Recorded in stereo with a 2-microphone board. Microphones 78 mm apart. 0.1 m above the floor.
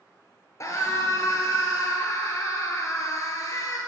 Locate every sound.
0.6 s a scream: 45° left (ahead or behind), 1.9 m